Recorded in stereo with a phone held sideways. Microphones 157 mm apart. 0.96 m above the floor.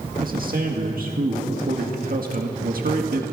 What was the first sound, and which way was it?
A man speaking, 65° right (ahead or behind).